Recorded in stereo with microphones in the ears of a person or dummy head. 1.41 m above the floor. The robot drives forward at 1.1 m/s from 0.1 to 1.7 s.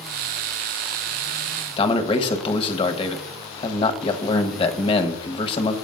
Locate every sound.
1.8 s a man speaking: 35° left (ahead or behind), 1.0 m